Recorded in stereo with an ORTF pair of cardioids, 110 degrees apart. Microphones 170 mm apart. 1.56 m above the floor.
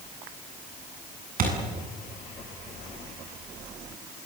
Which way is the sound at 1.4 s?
55° right.